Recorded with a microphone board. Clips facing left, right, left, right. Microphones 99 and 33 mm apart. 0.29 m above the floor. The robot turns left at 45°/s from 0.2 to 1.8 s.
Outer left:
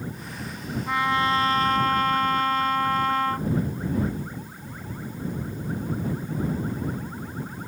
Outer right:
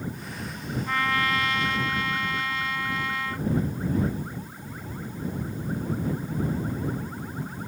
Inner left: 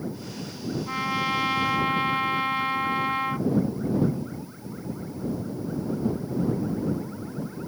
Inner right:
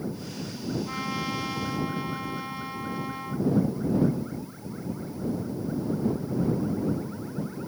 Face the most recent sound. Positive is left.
turn(degrees=120)